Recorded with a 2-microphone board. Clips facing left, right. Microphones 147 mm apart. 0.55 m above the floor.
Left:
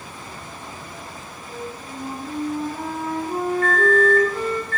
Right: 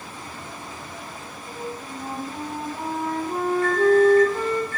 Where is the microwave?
15° right (ahead or behind), 2.5 m.